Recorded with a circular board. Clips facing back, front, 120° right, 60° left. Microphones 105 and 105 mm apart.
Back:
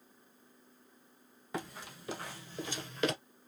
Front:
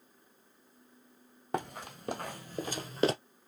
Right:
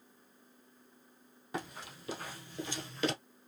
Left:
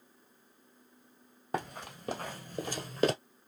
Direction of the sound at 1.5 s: 25° left.